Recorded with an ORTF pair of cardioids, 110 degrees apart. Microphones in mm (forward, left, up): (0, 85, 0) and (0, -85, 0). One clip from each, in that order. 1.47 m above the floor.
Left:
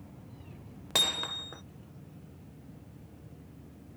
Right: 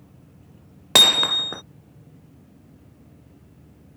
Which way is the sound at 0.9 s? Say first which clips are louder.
Right 14 dB; 60° right.